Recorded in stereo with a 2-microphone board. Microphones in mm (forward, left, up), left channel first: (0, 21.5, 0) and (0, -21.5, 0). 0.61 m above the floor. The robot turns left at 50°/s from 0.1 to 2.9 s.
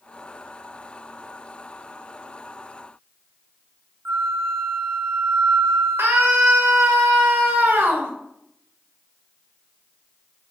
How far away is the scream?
About 2 m.